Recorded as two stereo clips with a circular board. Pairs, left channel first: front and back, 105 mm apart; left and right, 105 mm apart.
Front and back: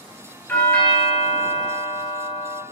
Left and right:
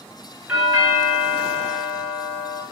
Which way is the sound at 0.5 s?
40° right.